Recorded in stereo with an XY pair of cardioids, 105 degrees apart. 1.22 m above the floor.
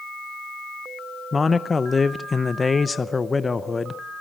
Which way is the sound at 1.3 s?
25° left.